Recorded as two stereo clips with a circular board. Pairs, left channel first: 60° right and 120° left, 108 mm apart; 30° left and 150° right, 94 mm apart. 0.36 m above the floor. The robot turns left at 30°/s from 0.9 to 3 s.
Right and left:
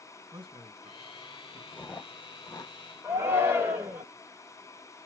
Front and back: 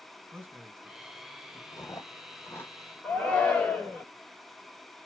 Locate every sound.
0.3 s a man speaking: 150° left, 1.6 m; by 1.6 s 130° left, 1.6 m
1.7 s chewing: 5° left, 0.8 m; by 2.8 s 25° right, 0.8 m
3.0 s a shout: 90° left, 1.2 m